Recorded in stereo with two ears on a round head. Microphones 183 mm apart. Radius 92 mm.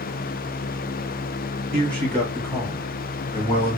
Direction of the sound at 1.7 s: 5° left (ahead or behind).